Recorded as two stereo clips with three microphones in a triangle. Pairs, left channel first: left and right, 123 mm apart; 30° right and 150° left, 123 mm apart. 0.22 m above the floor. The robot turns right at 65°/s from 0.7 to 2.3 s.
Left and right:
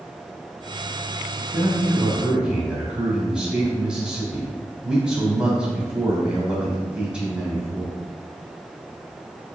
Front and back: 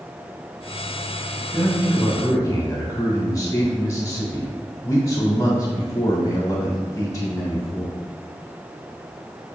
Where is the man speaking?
65° right, 1.3 m; by 7.9 s 15° right, 1.3 m.